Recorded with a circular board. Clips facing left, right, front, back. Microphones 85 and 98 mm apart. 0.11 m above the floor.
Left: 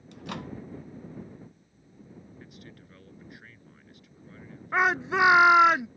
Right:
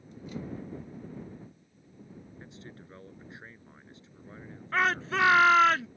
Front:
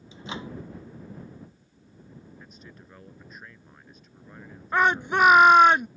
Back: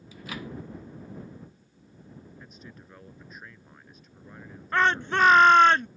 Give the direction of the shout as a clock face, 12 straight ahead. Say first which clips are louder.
Left 3 dB, front 2 dB; 10 o'clock.